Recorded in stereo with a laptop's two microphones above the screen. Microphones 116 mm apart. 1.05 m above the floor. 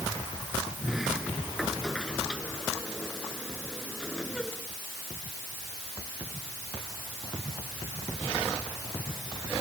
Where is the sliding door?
Centre (ahead or behind).